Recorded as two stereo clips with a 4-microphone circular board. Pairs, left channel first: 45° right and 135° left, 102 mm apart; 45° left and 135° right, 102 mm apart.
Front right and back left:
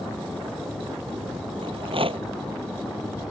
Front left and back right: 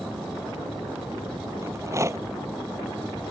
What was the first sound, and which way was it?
A rattle, 165° left.